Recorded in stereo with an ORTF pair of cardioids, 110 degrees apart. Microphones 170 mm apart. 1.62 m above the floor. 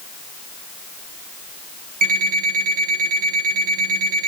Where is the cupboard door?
No cupboard door in this recording.